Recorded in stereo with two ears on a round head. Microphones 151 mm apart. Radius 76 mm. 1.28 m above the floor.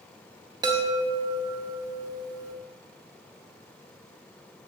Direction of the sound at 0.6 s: 25° right (ahead or behind).